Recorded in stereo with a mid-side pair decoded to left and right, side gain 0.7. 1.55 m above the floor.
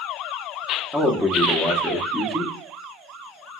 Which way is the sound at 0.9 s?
5° left.